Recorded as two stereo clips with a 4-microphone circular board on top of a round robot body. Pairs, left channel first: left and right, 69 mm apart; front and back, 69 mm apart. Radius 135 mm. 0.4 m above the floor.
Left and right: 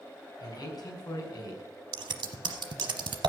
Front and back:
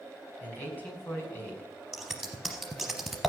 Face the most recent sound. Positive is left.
turn(degrees=-95)